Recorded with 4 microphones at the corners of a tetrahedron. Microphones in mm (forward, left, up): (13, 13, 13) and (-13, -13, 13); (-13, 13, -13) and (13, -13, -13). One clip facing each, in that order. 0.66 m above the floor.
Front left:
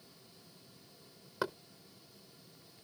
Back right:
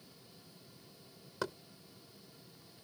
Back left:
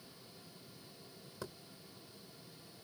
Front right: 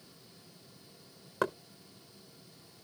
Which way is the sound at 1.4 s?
30° right.